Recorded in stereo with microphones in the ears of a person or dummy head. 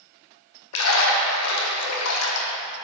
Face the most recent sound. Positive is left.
turn(degrees=75)  # may be behind; listen again after turning